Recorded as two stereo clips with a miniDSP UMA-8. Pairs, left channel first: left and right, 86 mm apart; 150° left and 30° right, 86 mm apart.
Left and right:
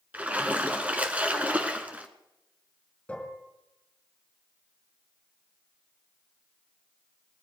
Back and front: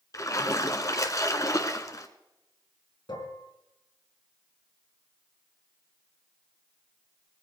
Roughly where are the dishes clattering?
Behind.